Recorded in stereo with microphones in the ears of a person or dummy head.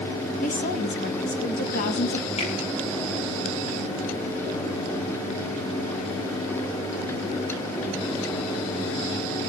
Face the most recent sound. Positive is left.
turn(degrees=40)  # may be behind; listen again after turning